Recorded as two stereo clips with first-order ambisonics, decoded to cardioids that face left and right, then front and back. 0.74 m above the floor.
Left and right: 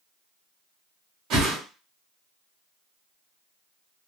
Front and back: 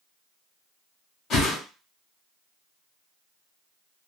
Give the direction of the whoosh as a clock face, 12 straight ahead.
2 o'clock.